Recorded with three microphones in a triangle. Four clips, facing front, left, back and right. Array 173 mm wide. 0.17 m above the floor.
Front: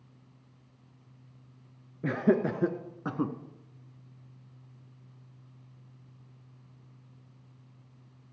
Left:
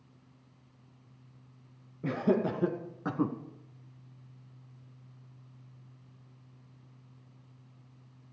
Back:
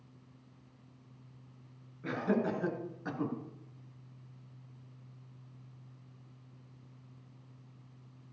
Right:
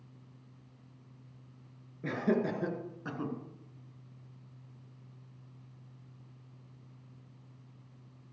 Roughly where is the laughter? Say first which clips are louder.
Left 2 dB, front 6 dB; ahead.